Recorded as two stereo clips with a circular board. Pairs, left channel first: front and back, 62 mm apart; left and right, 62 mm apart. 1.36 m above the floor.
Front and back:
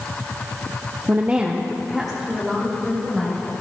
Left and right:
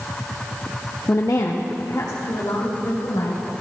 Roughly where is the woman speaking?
Behind left.